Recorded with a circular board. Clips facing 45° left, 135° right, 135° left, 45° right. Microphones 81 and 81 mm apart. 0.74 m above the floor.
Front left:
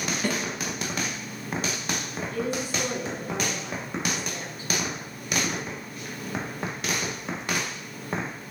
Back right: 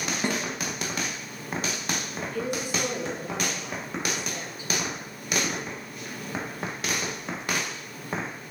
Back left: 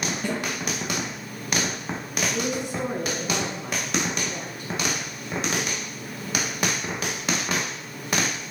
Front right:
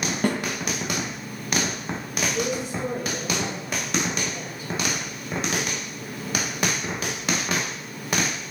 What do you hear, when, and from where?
0.2 s a snare drum: 70° right, 2 m
2.3 s a woman speaking: 150° left, 6 m